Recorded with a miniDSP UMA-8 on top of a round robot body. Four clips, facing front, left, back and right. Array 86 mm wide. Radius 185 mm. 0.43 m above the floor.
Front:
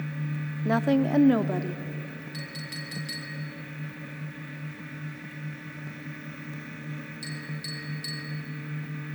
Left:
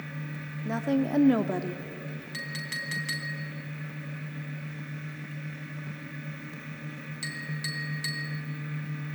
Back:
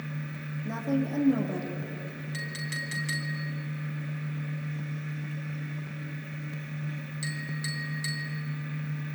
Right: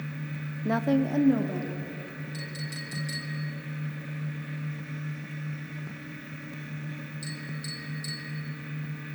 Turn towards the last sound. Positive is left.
turn(degrees=115)